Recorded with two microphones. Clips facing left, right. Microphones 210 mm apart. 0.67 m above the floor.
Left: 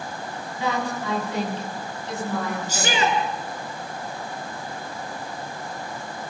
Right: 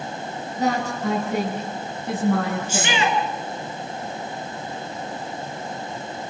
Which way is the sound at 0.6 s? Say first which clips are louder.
Right 3 dB; 45° right (ahead or behind).